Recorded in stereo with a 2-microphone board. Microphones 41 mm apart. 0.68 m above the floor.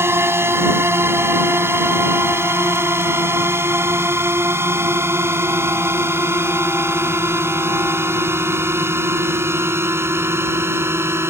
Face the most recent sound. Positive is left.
turn(degrees=-80)